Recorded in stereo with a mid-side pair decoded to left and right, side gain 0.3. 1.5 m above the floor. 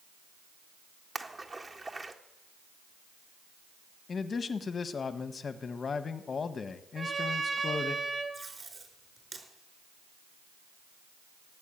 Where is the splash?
40° right, 1.8 m.